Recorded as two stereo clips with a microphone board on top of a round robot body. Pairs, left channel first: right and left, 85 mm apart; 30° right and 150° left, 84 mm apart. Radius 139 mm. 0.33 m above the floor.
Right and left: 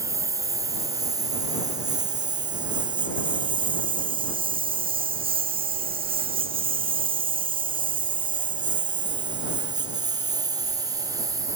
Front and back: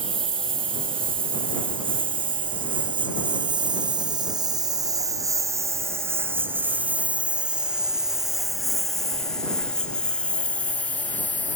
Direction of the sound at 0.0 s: 145° left.